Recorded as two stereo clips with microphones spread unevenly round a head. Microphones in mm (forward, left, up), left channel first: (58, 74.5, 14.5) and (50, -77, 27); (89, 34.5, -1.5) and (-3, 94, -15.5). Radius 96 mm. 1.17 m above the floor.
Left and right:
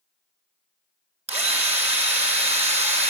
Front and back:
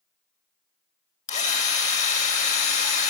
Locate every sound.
1.3 s a drill: 45° right, 2 m